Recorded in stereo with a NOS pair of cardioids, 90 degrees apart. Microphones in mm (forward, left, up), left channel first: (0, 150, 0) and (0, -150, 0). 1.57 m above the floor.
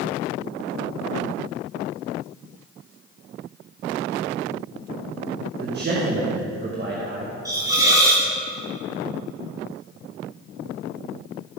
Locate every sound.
5.6 s a man speaking: 35° right, 1.7 m
7.5 s a hiss: 10° right, 2.5 m